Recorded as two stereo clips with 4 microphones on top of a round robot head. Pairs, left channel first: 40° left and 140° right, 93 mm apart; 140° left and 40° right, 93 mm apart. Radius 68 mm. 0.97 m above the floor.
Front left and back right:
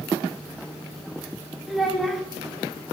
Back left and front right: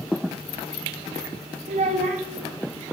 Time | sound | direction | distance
1.7 | a child speaking | 55° right | 0.6 m